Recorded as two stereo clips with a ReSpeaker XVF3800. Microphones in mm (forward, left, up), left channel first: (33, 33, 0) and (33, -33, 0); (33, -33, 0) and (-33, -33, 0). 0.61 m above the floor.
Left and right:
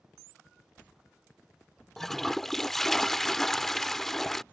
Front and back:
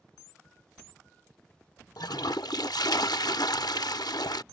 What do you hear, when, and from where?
2.0 s a toilet flushing: 5° left